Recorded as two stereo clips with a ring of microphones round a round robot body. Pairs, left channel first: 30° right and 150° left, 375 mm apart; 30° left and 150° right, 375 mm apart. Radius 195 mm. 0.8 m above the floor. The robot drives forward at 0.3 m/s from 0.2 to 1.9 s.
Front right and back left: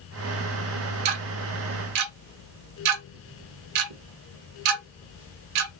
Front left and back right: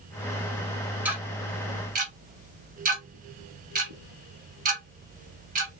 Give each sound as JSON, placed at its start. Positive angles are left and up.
{"t": 1.1, "sound": "ticking", "azimuth_deg": 125, "distance_m": 0.6}